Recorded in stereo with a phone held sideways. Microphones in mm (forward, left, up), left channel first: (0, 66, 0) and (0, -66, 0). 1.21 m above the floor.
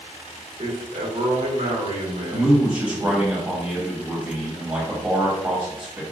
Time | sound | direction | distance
0.6 | a man speaking | 75° right (ahead or behind) | 1.4 m
2.3 | a man speaking | 15° right (ahead or behind) | 1.2 m